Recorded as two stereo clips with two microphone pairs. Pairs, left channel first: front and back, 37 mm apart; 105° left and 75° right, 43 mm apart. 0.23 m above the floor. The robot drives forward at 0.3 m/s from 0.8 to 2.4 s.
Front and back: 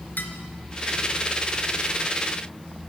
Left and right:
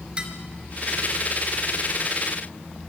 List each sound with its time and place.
0.2 s dishes clattering: 10° right, 2.5 m